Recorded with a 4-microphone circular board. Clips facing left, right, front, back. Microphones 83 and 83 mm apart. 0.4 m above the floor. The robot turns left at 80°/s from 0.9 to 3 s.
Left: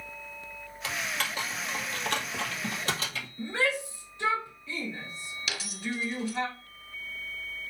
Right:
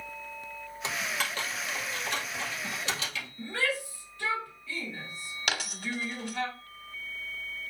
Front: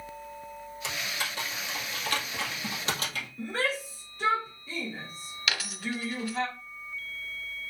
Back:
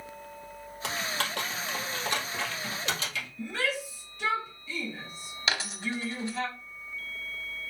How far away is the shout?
About 1.8 m.